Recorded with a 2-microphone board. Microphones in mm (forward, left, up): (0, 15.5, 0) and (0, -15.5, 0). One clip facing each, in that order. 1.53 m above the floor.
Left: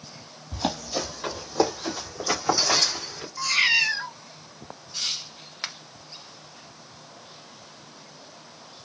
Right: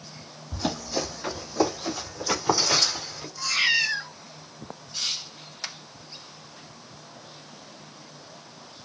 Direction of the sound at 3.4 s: 60° left (ahead or behind).